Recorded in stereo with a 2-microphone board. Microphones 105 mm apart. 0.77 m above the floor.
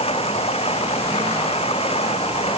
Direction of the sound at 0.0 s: 70° left (ahead or behind).